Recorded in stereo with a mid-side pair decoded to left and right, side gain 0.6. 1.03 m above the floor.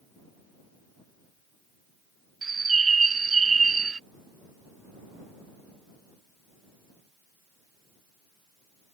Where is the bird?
25° right.